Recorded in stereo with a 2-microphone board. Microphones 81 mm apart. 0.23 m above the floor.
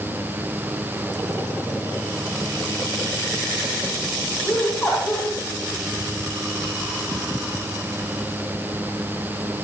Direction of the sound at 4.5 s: 30° left (ahead or behind).